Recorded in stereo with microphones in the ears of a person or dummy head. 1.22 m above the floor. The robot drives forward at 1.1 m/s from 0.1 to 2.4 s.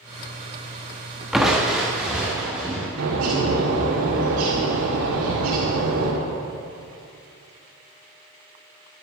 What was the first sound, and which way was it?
Crushing, 5° left (ahead or behind).